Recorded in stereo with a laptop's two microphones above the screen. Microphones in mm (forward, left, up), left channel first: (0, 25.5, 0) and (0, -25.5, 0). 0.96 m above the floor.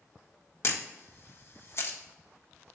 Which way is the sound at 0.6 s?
50° left (ahead or behind).